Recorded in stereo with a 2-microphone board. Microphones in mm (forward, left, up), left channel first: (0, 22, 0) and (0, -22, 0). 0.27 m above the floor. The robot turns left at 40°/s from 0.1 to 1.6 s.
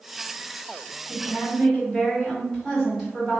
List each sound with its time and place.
1.1 s a woman speaking: 20° right (ahead or behind), 1.6 m; by 3.4 s 10° right (ahead or behind), 1.6 m